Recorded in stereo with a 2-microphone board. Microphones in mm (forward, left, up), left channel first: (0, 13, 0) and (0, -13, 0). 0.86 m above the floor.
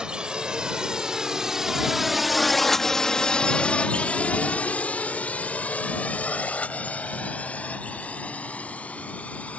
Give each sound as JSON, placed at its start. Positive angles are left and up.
{"t": 0.0, "sound": "a drone", "side_deg": -35}